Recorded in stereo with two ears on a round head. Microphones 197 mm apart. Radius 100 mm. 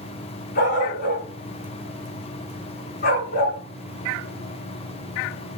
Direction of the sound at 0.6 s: 45° left (ahead or behind).